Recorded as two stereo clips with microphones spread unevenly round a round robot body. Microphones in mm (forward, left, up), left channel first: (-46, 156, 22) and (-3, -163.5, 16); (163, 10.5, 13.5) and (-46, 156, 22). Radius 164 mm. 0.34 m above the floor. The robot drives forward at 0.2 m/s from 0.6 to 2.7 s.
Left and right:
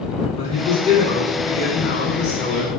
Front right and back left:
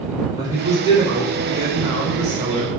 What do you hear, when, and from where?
0.4 s a man speaking: 95° left, 1.3 m; by 2.7 s 135° left, 1.4 m